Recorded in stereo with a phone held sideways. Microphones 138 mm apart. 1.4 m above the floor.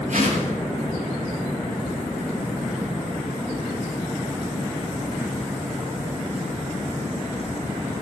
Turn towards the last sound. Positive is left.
turn(degrees=-70)  # may be behind; listen again after turning